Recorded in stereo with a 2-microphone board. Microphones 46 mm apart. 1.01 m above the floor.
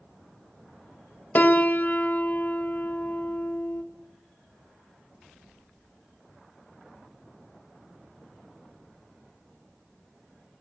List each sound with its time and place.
1.4 s a piano: 40° left (ahead or behind), 1.3 m